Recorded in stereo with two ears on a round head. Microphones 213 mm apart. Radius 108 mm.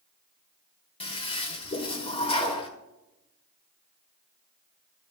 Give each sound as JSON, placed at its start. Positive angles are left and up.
{"t": 1.0, "sound": "a toilet flushing", "side_deg": 25, "distance_m": 1.4}